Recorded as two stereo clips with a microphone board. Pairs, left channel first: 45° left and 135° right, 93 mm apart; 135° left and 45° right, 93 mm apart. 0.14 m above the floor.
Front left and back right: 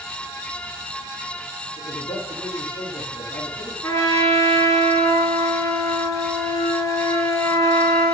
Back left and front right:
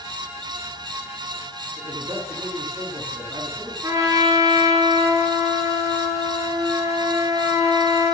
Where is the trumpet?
Straight ahead, 3 m.